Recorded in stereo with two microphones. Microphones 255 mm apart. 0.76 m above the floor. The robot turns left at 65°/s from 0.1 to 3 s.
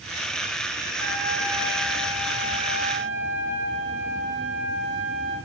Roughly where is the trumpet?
Ahead right.